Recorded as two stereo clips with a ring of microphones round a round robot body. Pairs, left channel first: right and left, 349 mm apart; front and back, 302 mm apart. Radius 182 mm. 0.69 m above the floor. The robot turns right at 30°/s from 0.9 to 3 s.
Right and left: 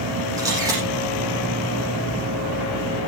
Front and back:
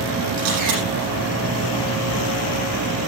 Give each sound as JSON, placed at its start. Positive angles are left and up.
{"t": 0.4, "sound": "a camera shutter", "azimuth_deg": 170, "distance_m": 8.5}